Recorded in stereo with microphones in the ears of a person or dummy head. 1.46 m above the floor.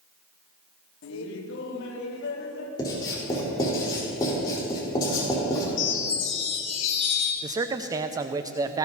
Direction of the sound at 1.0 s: 70° left (ahead or behind).